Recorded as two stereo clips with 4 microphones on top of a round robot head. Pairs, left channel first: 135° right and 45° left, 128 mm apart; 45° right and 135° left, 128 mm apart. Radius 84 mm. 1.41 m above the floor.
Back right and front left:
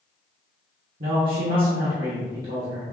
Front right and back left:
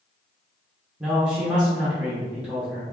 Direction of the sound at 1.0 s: 50° left.